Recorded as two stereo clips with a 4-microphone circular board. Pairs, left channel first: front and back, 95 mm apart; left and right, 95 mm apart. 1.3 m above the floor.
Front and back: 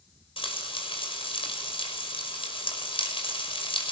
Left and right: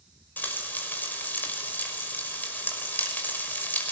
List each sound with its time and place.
0.4 s frying: 20° left, 5.5 m